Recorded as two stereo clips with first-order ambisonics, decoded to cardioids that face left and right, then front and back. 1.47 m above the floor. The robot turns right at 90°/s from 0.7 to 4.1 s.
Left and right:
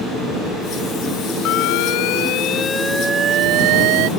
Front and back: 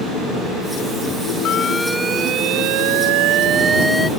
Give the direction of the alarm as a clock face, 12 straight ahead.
10 o'clock.